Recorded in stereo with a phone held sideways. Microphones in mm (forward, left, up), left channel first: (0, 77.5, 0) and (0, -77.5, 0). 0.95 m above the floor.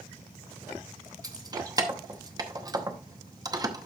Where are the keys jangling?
25° right (ahead or behind), 0.8 m.